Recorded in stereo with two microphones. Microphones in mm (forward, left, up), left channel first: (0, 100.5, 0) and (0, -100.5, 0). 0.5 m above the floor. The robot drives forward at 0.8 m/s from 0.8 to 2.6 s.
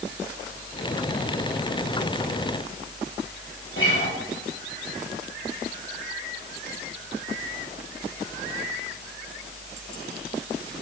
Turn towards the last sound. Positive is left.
turn(degrees=70)  # may be behind; listen again after turning